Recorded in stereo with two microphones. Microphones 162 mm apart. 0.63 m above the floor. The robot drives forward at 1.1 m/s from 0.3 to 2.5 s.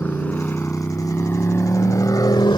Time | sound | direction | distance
0.0 | a motorcycle | 10° left (ahead or behind) | ?